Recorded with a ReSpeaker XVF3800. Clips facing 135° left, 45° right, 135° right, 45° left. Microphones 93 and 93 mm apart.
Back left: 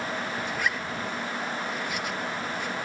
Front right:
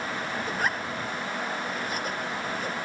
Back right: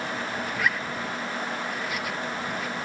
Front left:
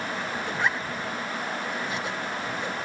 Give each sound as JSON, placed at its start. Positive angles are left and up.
{"t": 0.5, "sound": "a zipper", "azimuth_deg": -10}